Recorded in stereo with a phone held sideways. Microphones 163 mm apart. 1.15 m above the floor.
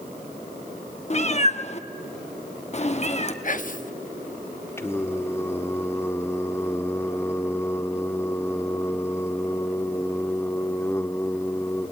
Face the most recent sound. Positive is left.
turn(degrees=15)  # may be behind; listen again after turning